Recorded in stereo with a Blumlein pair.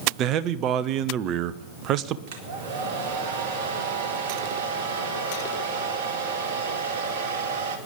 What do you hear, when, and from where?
0.2 s a man speaking: 35° right, 0.9 m
2.3 s a hair dryer: 50° right, 2 m